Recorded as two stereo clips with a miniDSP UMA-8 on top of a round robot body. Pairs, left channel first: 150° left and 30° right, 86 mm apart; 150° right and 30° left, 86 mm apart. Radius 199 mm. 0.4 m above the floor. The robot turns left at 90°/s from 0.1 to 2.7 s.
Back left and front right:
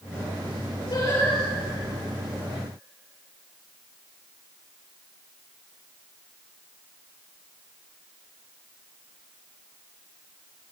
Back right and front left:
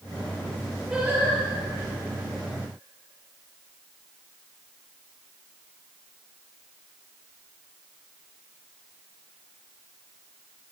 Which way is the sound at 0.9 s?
120° left.